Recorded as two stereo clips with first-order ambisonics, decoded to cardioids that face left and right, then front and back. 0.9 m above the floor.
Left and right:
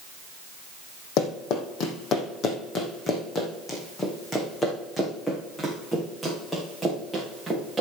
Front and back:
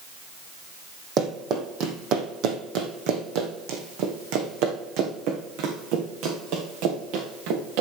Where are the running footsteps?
125° left, 1.8 m; by 7.8 s straight behind, 4.5 m.